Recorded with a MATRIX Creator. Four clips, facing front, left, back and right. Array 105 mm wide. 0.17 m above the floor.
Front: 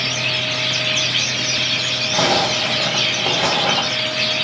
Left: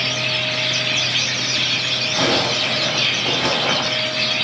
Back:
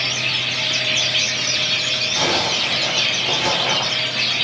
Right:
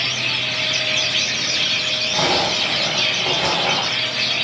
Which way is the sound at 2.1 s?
5° right.